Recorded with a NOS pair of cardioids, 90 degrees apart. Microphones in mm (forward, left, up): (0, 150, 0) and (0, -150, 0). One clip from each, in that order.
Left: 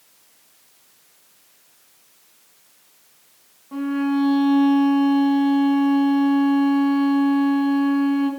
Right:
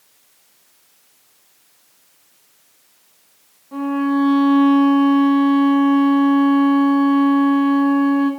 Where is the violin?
10° left, 1.6 m.